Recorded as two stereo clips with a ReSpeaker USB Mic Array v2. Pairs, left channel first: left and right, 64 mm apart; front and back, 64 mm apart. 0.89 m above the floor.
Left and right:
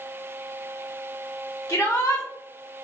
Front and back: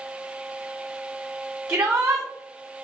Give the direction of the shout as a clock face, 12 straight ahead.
8 o'clock.